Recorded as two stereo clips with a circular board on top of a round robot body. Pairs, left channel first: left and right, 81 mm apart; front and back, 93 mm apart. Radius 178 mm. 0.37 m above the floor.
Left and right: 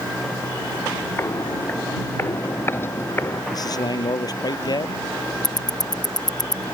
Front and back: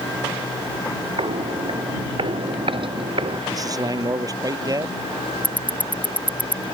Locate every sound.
1.2 s footsteps: 150° left; by 3.4 s 155° left
3.5 s a man speaking: 130° left
5.4 s ticking: 75° left